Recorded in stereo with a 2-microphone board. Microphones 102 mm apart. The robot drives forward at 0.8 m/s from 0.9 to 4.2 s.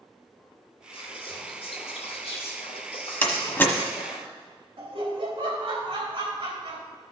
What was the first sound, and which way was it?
Whispering, 60° left (ahead or behind).